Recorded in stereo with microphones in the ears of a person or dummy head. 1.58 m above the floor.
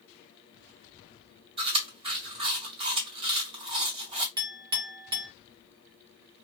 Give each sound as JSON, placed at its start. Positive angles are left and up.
{"t": 1.6, "sound": "chewing", "side_deg": -35, "distance_m": 1.9}
{"t": 4.4, "sound": "a clink", "side_deg": -25, "distance_m": 0.9}